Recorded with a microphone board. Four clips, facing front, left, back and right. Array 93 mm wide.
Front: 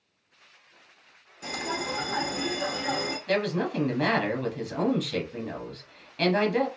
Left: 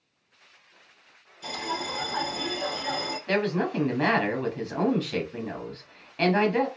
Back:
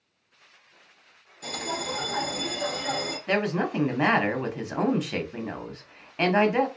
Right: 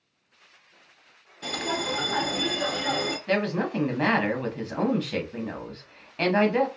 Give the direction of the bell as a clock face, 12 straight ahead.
2 o'clock.